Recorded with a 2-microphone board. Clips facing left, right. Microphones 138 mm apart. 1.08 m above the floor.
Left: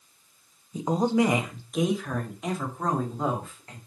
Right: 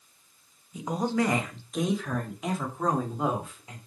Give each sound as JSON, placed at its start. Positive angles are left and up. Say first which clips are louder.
{"t": 0.7, "sound": "a woman speaking", "louder": "left 4 dB", "side_deg": 30, "distance_m": 0.9}